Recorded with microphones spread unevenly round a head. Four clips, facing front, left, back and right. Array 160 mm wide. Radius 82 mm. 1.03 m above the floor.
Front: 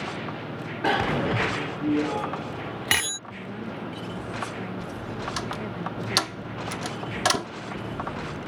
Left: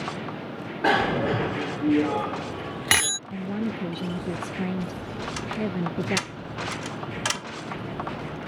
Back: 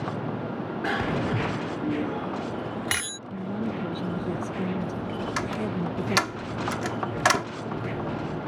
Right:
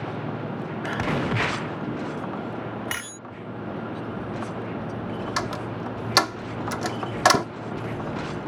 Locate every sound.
0.8 s a bicycle bell: 65° left
3.3 s a woman speaking: 110° left
5.4 s a door slam: 90° right